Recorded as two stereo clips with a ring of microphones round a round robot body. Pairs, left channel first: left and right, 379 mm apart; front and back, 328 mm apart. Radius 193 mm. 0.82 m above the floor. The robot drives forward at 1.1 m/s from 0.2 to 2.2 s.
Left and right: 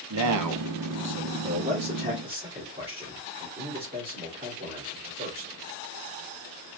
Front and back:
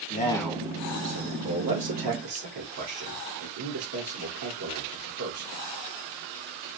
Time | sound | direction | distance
0.1 | a man speaking | 60° right | 0.7 m